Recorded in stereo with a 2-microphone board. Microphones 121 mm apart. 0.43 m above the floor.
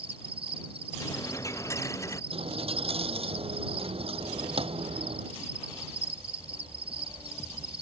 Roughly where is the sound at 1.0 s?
Left.